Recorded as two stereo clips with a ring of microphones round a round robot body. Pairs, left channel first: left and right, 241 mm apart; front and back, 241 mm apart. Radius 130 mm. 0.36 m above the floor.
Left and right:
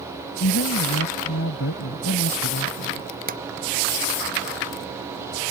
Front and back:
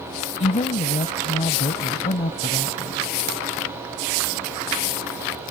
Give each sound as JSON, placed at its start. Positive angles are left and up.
{"t": 0.4, "sound": "a woman speaking", "azimuth_deg": 55}
{"t": 3.3, "sound": "a drawer", "azimuth_deg": -145}